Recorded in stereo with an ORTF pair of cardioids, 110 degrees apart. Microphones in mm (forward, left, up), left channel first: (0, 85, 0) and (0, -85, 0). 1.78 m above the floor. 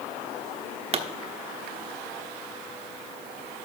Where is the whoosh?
I don't hear a whoosh.